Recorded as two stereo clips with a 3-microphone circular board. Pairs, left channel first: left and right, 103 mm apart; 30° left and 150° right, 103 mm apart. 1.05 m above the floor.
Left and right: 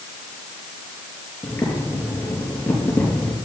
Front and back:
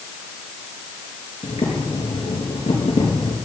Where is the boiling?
20° left, 5 m.